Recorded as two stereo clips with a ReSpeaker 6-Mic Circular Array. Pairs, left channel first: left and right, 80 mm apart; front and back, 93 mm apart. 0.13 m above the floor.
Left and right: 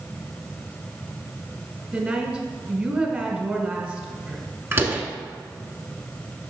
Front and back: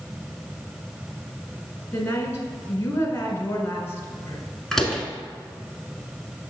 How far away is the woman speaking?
About 1.4 m.